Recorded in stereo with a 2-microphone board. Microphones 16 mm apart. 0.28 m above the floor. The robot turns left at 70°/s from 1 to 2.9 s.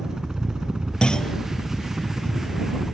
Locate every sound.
0.0 s a helicopter: 40° right (ahead or behind); by 3.0 s 5° left (ahead or behind)
1.0 s a clunk: 60° left (ahead or behind); by 1.4 s 35° left (ahead or behind)